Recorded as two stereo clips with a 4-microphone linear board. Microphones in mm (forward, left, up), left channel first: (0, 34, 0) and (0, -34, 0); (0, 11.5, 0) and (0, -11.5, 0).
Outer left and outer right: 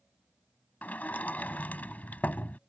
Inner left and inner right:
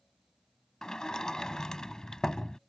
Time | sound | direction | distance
0.8 | a sliding door | 25° left (ahead or behind) | ?